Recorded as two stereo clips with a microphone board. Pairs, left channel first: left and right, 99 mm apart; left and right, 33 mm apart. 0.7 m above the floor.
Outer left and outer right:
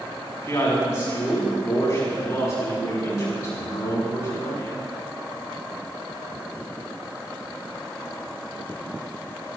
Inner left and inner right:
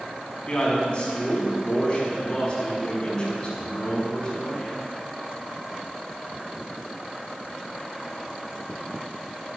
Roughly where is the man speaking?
Left.